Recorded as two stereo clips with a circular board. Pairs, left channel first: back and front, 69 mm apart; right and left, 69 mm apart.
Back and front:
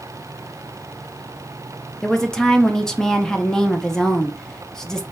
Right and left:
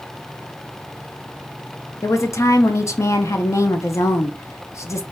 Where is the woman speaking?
100° right, 0.6 m.